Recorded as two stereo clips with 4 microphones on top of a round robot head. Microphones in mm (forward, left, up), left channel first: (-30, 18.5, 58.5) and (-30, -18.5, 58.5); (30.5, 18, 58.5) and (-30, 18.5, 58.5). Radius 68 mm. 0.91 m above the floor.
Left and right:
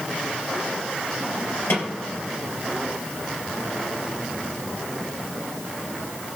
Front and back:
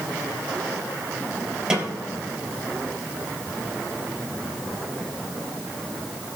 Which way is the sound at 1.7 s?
105° left.